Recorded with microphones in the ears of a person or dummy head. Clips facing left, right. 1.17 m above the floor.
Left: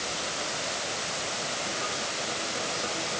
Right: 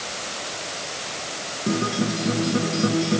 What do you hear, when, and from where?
1.7 s a guitar: 70° right (ahead or behind)